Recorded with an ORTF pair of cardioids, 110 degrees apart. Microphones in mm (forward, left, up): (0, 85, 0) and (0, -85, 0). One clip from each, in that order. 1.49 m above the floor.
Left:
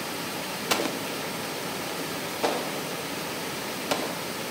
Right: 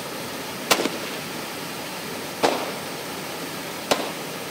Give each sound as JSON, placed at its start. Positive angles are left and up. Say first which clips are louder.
{"t": 0.7, "sound": "an explosion", "louder": "right 6 dB", "azimuth_deg": -30, "distance_m": 0.7}